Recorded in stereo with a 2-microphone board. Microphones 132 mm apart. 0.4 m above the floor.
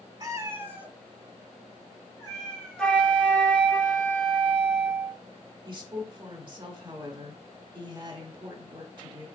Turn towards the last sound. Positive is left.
turn(degrees=-35)  # may be behind; listen again after turning